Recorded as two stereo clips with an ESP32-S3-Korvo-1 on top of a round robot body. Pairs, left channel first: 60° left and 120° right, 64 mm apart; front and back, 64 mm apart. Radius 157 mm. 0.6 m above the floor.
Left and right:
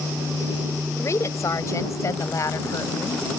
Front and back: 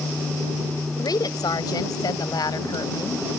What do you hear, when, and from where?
1.0 s a woman speaking: 15° left; by 3.2 s 20° left